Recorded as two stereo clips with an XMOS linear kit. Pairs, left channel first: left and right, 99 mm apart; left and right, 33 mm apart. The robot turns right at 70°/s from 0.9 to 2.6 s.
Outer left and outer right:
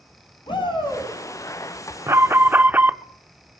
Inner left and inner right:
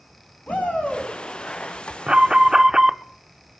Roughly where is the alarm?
Right.